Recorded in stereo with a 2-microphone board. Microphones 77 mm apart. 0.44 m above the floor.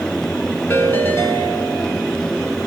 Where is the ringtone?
30° left (ahead or behind), 2.5 m.